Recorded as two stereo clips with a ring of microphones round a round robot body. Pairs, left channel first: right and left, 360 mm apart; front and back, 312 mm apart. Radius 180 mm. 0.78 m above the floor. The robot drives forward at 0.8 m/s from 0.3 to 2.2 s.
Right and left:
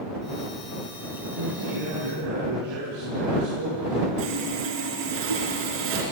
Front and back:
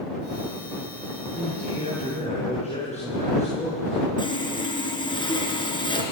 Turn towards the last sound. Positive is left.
turn(degrees=75)